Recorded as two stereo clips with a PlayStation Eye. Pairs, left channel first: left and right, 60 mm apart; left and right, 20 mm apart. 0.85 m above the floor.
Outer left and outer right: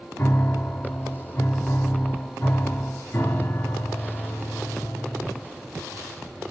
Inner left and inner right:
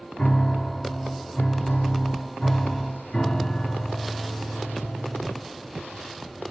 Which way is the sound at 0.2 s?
40° left (ahead or behind).